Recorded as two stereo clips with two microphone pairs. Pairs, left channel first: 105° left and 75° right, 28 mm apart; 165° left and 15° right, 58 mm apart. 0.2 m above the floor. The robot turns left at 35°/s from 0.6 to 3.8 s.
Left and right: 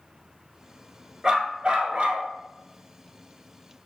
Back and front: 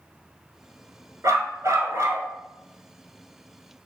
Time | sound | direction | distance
1.2 | a dog barking | 5° right | 0.9 m